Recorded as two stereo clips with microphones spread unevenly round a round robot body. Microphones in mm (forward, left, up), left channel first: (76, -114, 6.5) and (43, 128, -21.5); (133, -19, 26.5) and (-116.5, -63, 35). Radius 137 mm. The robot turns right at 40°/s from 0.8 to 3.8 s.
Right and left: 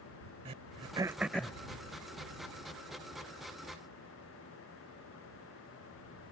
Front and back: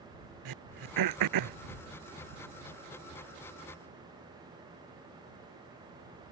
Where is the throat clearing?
170° left; by 1.6 s 160° right.